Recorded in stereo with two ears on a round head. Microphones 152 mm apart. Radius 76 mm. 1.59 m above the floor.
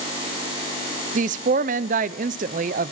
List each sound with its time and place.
1.1 s a woman speaking: 45° right (ahead or behind), 0.7 m